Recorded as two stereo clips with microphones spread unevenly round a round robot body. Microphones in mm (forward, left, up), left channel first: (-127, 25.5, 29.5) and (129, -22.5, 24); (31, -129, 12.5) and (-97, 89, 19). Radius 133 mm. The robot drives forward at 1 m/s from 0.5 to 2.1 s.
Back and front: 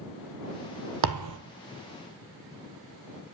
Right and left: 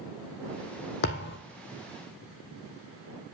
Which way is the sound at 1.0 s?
10° right.